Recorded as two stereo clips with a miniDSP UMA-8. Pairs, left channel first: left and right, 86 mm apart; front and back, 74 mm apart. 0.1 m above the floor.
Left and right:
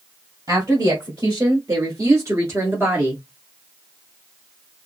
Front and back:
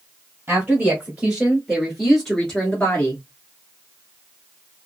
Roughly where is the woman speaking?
Behind right.